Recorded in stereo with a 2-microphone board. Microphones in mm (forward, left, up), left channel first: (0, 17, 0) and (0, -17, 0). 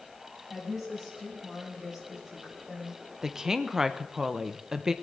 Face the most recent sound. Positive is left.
turn(degrees=-15)  # may be behind; listen again after turning